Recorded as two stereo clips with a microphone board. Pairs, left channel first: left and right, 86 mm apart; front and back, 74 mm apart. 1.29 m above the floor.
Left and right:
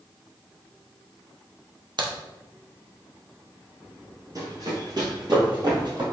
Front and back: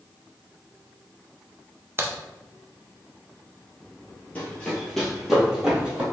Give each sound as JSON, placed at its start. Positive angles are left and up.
{"t": 2.0, "sound": "a crack", "azimuth_deg": -120, "distance_m": 0.6}
{"t": 4.3, "sound": "running footsteps", "azimuth_deg": -65, "distance_m": 1.9}